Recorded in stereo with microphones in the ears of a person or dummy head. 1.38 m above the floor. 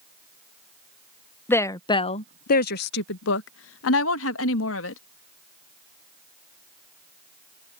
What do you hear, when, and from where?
1.5 s a woman speaking: 15° left (ahead or behind); by 5.0 s 75° left (ahead or behind)